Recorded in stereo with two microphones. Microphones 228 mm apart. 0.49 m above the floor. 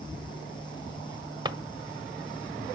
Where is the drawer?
20° right (ahead or behind), 1.0 m.